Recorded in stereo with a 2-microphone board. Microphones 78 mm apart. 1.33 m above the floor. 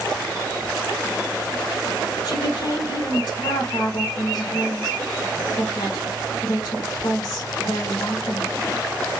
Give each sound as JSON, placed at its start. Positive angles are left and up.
{"t": 2.2, "sound": "a woman speaking", "side_deg": 55, "distance_m": 1.4}